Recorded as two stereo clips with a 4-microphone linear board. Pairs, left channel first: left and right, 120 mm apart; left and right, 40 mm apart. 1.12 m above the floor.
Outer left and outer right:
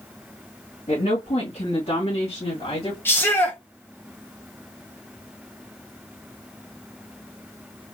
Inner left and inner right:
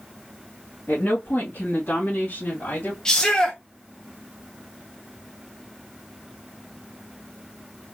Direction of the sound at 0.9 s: 65° left (ahead or behind).